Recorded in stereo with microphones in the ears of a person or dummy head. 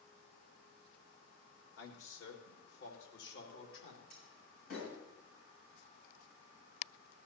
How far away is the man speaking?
About 2.5 m.